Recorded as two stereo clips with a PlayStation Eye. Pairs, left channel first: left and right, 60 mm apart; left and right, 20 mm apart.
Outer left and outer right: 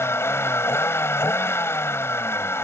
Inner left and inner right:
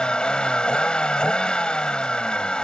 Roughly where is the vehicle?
Left.